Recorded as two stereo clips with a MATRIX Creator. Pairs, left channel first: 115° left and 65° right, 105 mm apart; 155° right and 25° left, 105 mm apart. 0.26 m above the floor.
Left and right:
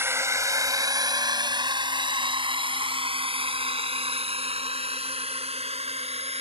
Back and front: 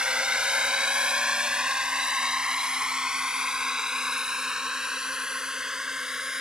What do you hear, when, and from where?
0.0 s a drone: 45° right; by 6.4 s 60° right